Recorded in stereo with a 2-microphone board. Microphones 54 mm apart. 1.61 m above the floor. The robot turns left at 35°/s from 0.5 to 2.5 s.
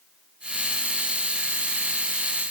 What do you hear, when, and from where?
Only background noise.